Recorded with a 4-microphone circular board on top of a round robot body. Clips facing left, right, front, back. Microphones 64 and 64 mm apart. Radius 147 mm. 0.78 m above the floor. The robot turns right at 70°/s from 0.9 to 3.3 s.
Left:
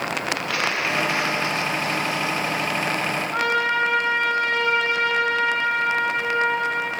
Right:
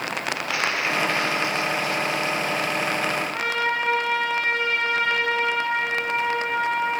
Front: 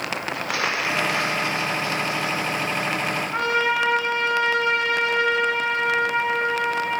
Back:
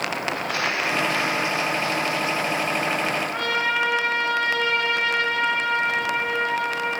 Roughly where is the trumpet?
Left.